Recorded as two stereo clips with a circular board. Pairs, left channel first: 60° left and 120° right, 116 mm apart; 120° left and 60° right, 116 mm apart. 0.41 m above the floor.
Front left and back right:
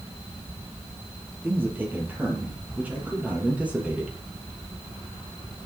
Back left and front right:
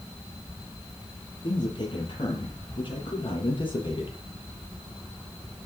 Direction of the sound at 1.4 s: 170° left.